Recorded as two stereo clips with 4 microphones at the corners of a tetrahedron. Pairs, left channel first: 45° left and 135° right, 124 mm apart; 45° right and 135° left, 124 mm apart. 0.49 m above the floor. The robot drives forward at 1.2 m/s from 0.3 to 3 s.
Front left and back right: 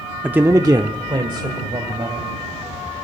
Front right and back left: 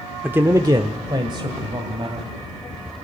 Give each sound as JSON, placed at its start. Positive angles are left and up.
{"t": 0.2, "sound": "a man speaking", "azimuth_deg": 165, "distance_m": 0.7}